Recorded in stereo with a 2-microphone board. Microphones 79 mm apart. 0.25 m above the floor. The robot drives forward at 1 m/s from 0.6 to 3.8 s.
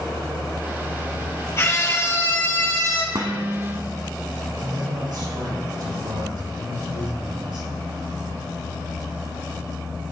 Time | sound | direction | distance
1.6 | a scream | 35° left (ahead or behind) | 6.5 m
3.1 | dishes clattering | 45° right (ahead or behind) | 1.5 m
4.6 | a man speaking | 60° right (ahead or behind) | 5 m